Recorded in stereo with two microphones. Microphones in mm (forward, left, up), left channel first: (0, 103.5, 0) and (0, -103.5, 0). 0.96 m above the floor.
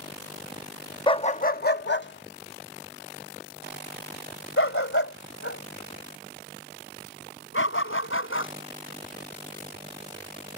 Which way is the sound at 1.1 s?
25° left (ahead or behind).